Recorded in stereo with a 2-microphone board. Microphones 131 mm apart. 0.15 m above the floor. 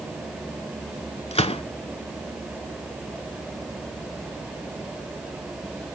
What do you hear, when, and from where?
1.3 s a gunshot: 50° left (ahead or behind), 0.9 m